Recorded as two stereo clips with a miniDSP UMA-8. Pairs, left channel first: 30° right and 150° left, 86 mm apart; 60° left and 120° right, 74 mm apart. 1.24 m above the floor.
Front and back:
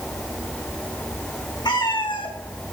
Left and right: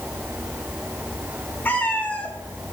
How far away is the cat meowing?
About 1.7 m.